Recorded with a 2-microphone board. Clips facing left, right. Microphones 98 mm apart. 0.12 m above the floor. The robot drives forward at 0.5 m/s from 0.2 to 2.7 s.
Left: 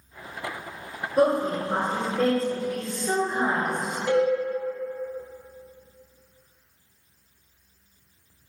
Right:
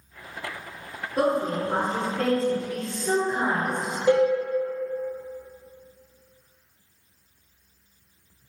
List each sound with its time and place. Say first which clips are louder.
1.2 s a woman speaking: left 2 dB; centre (ahead or behind), 2.0 m
4.1 s a cowbell: right 3 dB; 15° right (ahead or behind), 1.8 m